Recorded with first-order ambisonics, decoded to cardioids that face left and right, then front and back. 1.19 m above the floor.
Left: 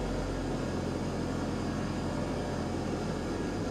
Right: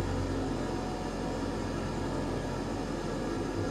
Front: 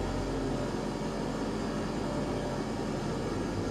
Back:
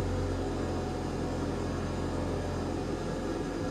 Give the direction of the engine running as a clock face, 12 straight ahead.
12 o'clock.